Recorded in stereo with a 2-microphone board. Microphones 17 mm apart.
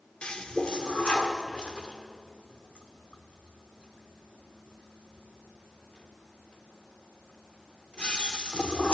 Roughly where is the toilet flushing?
Left.